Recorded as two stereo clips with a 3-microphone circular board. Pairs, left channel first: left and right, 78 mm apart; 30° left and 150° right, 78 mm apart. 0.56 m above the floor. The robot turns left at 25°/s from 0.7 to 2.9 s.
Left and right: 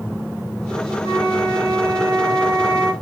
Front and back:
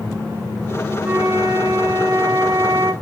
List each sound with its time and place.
1.0 s a flute: 70° right, 0.7 m; by 2.9 s 115° right, 0.7 m